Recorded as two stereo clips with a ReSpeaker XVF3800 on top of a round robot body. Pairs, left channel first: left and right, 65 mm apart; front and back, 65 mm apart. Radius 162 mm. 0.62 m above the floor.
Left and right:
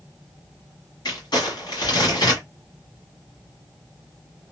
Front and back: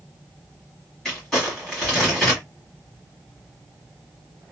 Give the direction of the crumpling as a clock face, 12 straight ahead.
9 o'clock.